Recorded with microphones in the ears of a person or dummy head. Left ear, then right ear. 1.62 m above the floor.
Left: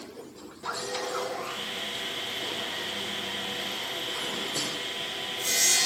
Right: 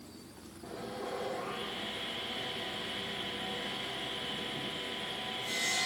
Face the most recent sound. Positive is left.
turn(degrees=80)